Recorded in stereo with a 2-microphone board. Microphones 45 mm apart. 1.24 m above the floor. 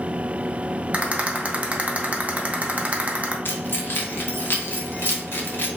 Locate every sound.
0.9 s a rattle: 30° right (ahead or behind), 0.5 m
3.5 s keys jangling: 50° left (ahead or behind), 0.6 m